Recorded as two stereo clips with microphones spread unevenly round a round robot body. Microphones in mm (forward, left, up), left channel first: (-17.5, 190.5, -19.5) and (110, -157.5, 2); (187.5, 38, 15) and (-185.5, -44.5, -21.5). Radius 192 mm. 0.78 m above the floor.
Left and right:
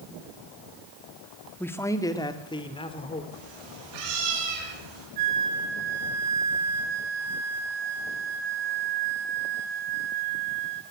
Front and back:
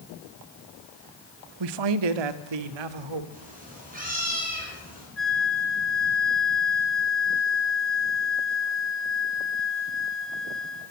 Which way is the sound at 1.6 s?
165° right.